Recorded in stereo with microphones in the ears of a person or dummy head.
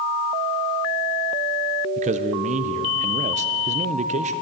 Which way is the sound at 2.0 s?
30° right (ahead or behind).